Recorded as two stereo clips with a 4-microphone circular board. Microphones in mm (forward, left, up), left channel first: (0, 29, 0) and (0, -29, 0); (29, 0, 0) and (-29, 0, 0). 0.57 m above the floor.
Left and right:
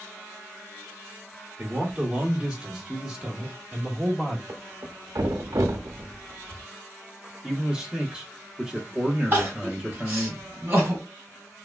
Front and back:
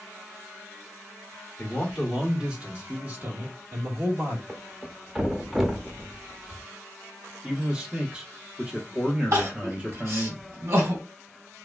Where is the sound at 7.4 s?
135° right, 0.9 m.